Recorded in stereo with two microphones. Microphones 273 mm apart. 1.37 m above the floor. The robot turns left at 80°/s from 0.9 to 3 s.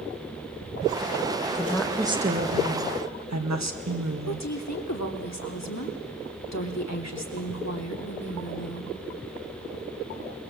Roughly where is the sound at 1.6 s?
Ahead left.